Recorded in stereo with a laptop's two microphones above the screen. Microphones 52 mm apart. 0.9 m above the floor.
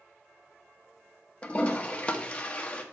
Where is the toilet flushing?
25° left (ahead or behind), 0.6 m.